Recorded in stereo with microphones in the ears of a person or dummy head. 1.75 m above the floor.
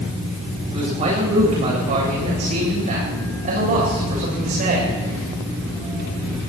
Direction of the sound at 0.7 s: 40° right (ahead or behind).